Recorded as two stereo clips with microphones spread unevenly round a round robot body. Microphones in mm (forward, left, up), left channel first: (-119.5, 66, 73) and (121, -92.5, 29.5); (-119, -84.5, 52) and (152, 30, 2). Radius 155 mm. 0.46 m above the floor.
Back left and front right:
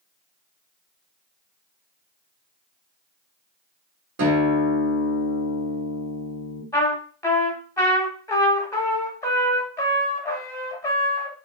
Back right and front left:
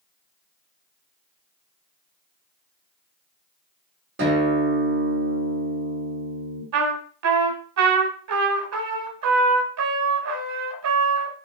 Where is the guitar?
15° right, 2.5 m.